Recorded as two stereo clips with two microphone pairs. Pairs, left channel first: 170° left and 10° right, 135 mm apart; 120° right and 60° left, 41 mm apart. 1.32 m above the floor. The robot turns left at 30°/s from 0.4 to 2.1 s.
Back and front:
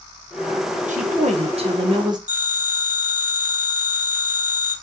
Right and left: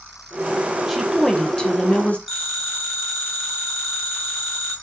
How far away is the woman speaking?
About 0.9 m.